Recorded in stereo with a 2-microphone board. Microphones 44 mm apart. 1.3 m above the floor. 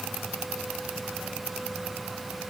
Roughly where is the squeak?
No squeak in this recording.